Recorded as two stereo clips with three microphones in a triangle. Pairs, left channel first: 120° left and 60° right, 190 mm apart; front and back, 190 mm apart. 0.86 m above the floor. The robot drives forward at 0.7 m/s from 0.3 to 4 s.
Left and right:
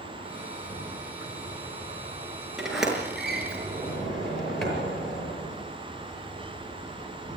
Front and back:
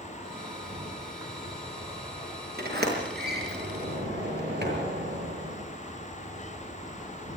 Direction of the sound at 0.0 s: 100° left.